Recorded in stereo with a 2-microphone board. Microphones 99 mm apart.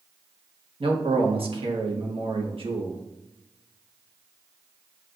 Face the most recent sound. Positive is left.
turn(degrees=-60)  # may be behind; listen again after turning